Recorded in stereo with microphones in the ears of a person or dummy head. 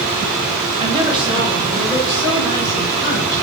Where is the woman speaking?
35° right (ahead or behind), 1.1 m; by 3.4 s 20° right (ahead or behind), 5 m.